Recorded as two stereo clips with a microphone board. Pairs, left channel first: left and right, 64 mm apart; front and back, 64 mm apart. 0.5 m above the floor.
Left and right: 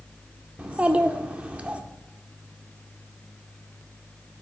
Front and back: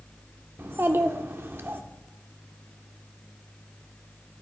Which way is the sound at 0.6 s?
150° right.